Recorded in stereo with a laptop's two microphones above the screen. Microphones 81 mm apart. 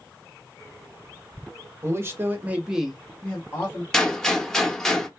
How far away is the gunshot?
About 0.6 m.